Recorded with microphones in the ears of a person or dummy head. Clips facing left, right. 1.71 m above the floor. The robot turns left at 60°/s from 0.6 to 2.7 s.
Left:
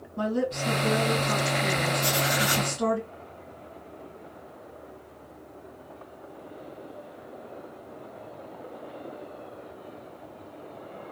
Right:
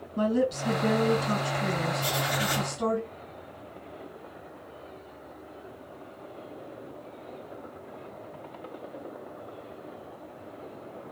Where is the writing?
170° right, 3 m; by 2.7 s 150° left, 3 m.